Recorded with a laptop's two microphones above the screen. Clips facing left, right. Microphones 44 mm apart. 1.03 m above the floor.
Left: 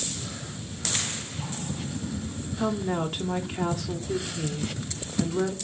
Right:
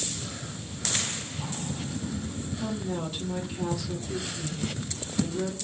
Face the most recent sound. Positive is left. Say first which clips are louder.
# left 6 dB
turn(degrees=45)  # may be behind; listen again after turning